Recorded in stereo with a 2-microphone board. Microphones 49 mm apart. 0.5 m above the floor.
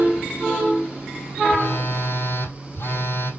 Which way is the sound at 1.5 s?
65° left (ahead or behind).